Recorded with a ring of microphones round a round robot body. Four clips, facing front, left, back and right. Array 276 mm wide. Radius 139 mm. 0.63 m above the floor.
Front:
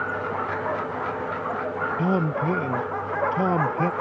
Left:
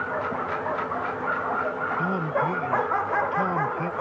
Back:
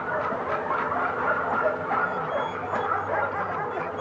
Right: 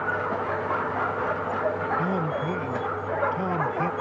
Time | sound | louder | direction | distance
2.0 | a man speaking | left 1 dB, front 3 dB | straight ahead | ?